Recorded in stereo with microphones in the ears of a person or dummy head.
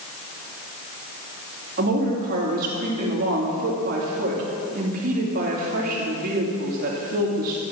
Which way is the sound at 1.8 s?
45° right (ahead or behind).